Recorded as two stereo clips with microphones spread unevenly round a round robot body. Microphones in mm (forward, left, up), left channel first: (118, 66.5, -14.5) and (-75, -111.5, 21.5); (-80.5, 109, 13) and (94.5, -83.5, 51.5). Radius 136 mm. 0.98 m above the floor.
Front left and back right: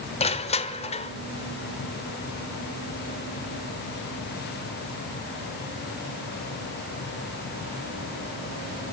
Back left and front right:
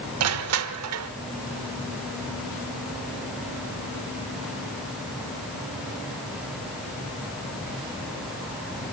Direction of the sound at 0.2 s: 25° right.